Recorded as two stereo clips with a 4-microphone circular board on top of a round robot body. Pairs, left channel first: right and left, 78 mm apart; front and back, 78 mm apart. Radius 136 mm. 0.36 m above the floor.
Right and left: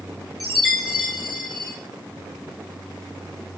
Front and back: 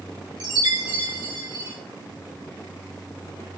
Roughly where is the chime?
Behind.